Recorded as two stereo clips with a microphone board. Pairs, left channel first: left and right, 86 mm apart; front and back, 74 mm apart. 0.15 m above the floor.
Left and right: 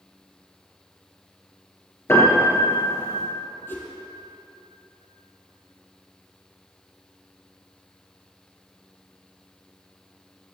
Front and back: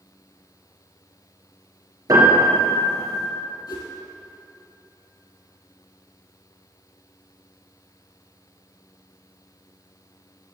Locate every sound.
2.1 s a piano: 150° left, 5 m
3.7 s a whoosh: 25° left, 3.5 m